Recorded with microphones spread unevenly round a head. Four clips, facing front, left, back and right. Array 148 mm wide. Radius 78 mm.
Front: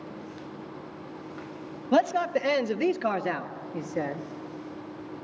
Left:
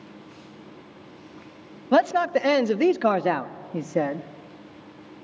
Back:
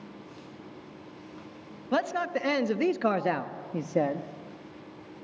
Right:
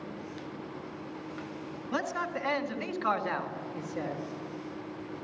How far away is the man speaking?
About 1.0 m.